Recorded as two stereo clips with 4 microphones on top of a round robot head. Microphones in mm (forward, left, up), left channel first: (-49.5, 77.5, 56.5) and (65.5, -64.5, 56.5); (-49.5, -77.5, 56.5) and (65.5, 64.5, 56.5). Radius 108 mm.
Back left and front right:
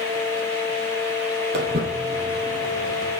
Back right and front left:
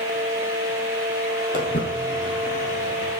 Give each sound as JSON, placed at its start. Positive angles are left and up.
{"t": 1.5, "sound": "footsteps", "azimuth_deg": -85, "distance_m": 1.9}